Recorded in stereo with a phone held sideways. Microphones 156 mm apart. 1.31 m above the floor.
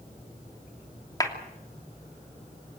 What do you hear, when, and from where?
1.2 s a clap: 20° left (ahead or behind), 2.5 m